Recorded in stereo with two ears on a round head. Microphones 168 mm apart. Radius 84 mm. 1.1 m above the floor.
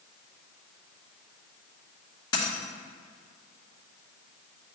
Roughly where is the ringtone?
No ringtone in this recording.